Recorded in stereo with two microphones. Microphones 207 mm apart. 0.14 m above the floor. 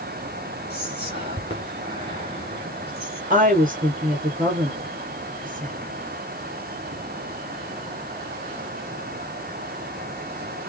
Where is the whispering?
30° right (ahead or behind), 1.9 m.